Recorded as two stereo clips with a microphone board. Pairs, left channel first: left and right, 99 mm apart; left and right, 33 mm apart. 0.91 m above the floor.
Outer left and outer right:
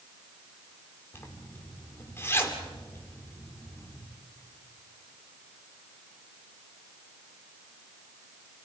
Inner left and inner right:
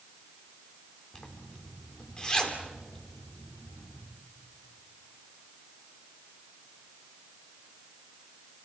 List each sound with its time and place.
1.1 s a zipper: 25° left (ahead or behind), 2.5 m